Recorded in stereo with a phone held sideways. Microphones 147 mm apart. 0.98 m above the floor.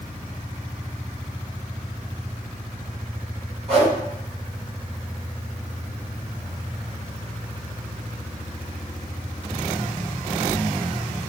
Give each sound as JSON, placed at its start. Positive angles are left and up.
{"t": 3.7, "sound": "a whoosh", "side_deg": -40, "distance_m": 1.4}